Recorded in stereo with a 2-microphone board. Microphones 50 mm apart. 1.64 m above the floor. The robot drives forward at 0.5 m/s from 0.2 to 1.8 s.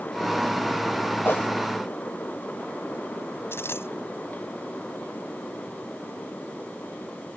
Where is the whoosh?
45° left (ahead or behind).